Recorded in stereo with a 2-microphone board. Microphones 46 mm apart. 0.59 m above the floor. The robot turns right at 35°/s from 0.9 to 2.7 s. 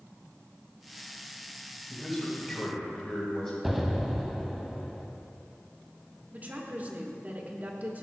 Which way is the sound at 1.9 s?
10° right (ahead or behind).